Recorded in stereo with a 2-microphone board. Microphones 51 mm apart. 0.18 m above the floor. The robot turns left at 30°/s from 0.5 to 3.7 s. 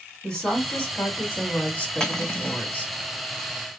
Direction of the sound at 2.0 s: 10° left (ahead or behind).